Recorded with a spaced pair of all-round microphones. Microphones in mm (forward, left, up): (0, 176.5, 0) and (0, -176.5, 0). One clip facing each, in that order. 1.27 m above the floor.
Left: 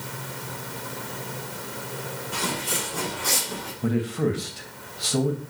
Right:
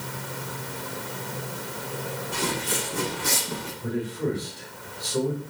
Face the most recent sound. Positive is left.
turn(degrees=80)